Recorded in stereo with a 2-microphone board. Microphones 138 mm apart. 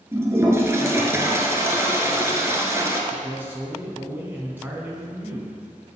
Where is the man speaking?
15° right (ahead or behind), 1.4 m.